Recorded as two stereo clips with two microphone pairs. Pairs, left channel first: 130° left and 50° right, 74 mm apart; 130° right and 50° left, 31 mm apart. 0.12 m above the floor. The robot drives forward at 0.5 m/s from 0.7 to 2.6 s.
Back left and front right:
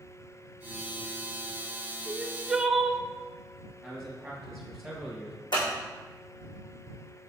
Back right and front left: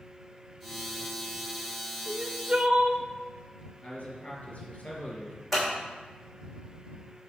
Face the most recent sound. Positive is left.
turn(degrees=145)